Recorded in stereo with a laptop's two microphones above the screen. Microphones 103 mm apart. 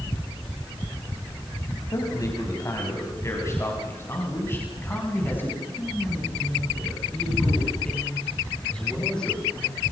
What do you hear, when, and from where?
1.9 s a man speaking: 40° left (ahead or behind), 6 m; by 9.8 s 10° left (ahead or behind), 10.5 m